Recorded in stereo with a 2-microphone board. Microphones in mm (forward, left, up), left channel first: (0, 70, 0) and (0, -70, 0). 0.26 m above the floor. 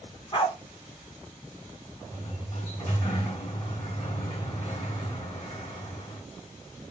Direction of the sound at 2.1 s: 35° left (ahead or behind).